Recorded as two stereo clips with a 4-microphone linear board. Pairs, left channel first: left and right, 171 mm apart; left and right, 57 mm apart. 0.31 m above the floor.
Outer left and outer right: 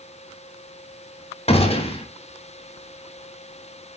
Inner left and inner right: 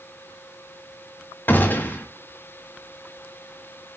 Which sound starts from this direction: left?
A gunshot, at 1.5 s.